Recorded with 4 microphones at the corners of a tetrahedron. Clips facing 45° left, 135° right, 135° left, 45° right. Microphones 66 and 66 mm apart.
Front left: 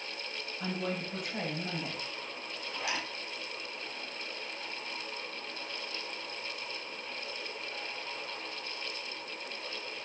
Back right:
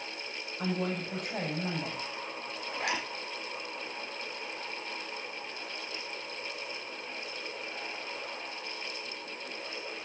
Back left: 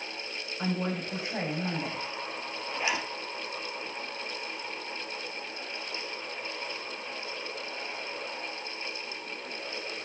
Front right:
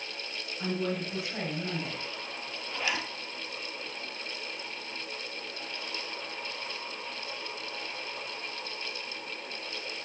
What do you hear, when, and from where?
0.6 s a woman speaking: 170° right, 5.5 m
2.7 s a zipper: 155° right, 3 m